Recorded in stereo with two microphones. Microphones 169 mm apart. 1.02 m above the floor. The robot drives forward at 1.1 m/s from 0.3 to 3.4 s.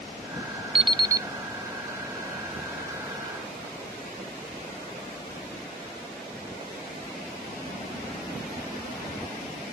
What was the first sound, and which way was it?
An alarm clock, 35° right (ahead or behind).